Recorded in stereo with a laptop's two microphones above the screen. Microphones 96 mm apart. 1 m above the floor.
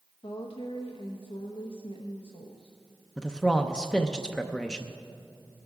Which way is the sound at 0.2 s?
70° left (ahead or behind).